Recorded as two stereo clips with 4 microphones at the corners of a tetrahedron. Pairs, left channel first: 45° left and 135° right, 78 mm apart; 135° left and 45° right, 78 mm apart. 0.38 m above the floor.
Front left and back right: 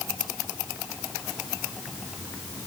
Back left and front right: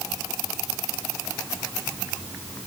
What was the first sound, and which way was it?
Only background noise.